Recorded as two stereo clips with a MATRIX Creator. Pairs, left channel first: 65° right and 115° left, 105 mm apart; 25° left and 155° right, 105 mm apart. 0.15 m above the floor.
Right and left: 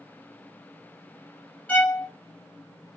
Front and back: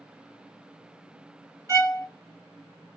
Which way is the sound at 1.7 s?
130° right.